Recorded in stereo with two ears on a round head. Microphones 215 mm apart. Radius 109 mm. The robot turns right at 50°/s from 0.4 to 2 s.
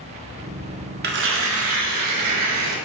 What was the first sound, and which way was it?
Tearing paper, 135° right.